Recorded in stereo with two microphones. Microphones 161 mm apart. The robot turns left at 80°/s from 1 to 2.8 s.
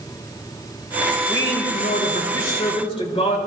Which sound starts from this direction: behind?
A man speaking, at 1.3 s.